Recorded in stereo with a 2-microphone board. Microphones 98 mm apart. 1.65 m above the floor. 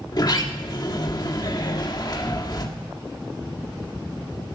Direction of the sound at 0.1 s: 45° left (ahead or behind).